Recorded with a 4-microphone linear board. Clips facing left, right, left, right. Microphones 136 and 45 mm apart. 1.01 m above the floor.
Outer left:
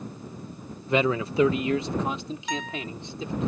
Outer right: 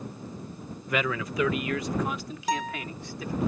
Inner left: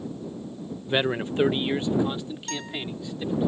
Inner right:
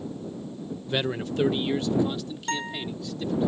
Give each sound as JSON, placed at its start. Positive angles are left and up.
{"t": 0.9, "sound": "a man speaking", "side_deg": 25}
{"t": 2.5, "sound": "a guitar", "side_deg": -40}